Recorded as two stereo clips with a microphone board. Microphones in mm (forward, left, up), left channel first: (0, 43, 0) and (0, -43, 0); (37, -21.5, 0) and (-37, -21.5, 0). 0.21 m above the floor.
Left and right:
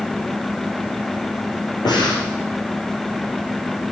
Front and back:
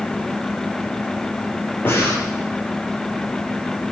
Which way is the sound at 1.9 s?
60° left.